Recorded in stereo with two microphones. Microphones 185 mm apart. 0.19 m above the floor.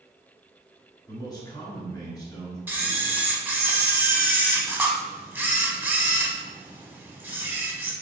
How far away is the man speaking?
About 1.3 m.